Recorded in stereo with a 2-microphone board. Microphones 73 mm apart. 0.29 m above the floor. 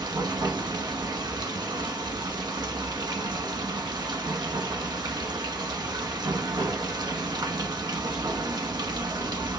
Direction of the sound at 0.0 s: 80° right.